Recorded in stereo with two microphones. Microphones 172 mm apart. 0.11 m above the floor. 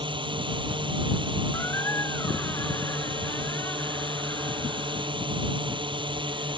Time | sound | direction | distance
0.0 | a drone | 30° right (ahead or behind) | ?
1.5 | a squeak | 15° left (ahead or behind) | ?